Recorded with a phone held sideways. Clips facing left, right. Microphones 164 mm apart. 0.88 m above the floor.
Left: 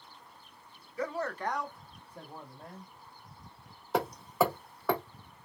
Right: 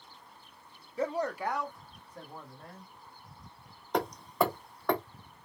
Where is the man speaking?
30° right (ahead or behind), 0.5 m; by 2.9 s 20° left (ahead or behind), 1.4 m.